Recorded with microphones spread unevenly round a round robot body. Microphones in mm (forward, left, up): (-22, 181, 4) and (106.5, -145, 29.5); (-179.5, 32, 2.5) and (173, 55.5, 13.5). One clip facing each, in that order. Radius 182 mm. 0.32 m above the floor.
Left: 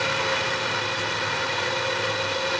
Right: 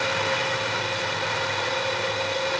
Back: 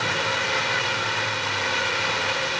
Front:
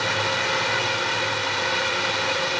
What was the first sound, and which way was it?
Only background noise.